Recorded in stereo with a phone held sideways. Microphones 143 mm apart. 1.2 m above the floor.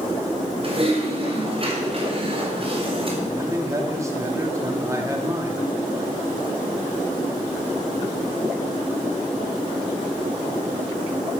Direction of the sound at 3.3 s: 20° right (ahead or behind).